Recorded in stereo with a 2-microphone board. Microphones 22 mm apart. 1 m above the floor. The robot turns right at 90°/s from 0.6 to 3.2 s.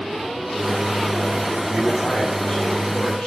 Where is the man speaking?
5° left, 1.9 m; by 3.3 s 140° left, 1.9 m.